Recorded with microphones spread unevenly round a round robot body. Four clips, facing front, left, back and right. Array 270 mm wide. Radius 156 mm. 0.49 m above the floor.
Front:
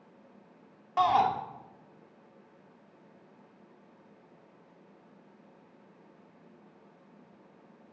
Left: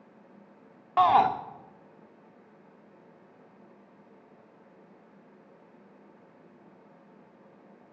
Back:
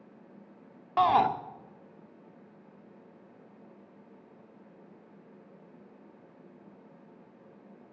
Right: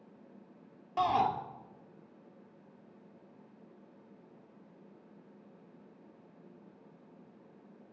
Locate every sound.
1.0 s a shout: 170° right, 1.0 m